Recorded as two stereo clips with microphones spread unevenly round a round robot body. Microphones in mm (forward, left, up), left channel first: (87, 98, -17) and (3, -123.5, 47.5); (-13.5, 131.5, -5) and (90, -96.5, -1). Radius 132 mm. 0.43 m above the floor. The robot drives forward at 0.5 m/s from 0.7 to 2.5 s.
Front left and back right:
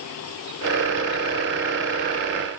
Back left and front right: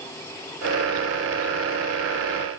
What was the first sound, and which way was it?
Only background noise.